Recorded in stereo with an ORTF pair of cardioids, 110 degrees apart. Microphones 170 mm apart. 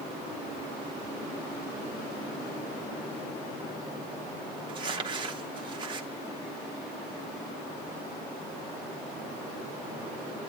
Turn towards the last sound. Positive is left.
turn(degrees=-30)